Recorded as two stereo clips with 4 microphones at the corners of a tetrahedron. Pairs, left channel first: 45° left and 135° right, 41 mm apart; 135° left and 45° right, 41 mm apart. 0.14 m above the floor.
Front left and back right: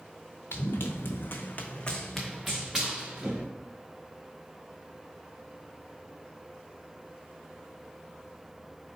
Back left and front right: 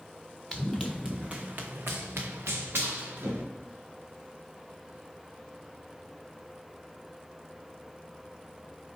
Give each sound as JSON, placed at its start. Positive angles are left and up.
{"t": 0.5, "sound": "running footsteps", "azimuth_deg": 50, "distance_m": 0.9}